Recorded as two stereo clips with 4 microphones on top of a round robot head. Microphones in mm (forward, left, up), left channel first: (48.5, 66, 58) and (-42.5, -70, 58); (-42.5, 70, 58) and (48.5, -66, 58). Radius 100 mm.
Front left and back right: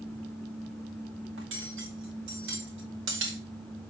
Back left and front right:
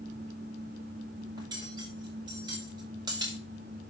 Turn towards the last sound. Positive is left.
turn(degrees=-125)